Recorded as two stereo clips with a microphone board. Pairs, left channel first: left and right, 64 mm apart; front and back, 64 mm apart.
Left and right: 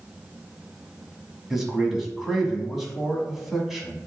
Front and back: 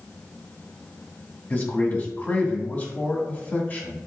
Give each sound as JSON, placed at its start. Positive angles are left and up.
{"t": 1.5, "sound": "a man speaking", "azimuth_deg": -10, "distance_m": 1.0}